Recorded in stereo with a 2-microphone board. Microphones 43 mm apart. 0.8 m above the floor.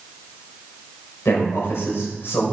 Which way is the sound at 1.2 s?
80° left.